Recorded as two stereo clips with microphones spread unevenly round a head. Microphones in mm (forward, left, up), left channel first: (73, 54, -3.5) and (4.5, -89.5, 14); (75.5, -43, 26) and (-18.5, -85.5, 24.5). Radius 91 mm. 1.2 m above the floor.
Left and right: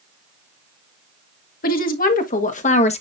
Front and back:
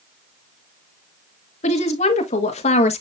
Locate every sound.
1.6 s a woman speaking: 35° left, 1.8 m; by 3.0 s 15° left, 1.2 m